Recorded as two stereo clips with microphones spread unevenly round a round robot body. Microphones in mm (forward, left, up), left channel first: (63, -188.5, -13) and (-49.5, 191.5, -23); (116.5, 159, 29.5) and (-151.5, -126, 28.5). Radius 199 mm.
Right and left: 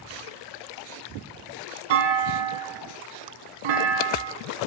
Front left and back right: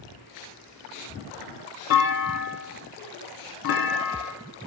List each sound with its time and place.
1.9 s a clunk: 105° left, 1.2 m